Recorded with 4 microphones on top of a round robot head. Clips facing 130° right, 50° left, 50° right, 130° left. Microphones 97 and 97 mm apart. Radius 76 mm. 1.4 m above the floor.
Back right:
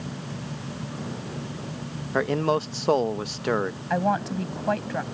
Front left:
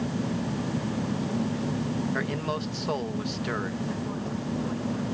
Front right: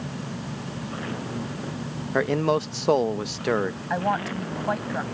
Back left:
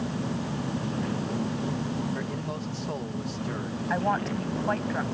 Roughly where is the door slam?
I don't hear a door slam.